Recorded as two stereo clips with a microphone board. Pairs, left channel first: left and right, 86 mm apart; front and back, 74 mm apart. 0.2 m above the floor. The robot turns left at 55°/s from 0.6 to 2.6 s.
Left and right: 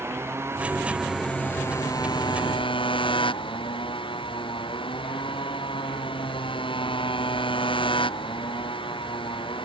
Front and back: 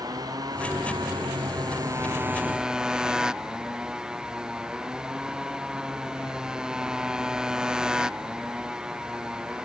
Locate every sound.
0.0 s a motorcycle: 150° right; by 9.7 s 100° left